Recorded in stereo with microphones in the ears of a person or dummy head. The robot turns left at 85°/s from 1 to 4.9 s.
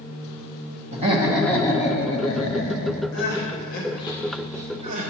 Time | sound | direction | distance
0.9 | laughter | 145° right | 1.2 m
3.1 | crying | 65° left (ahead or behind) | 1.4 m